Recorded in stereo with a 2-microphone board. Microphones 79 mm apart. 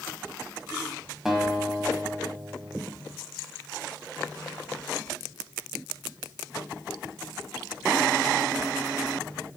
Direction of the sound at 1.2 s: 5° right (ahead or behind).